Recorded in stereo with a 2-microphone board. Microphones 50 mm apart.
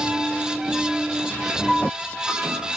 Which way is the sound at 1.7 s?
10° right (ahead or behind).